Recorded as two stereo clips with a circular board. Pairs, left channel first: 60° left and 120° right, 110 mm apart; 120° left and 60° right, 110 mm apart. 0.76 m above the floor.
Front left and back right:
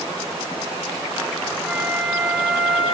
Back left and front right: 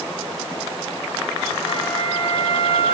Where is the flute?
155° left, 5 m.